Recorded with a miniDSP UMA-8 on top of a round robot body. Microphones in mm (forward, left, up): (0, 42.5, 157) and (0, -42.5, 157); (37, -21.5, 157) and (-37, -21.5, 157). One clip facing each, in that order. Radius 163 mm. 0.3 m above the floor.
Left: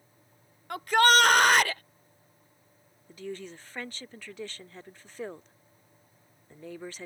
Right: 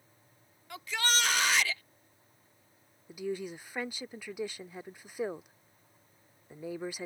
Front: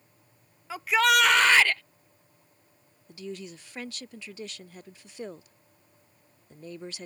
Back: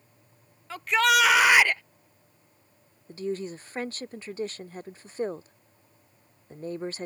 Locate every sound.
0.7 s a shout: 80° left; by 1.8 s 115° left
3.1 s a woman speaking: 165° right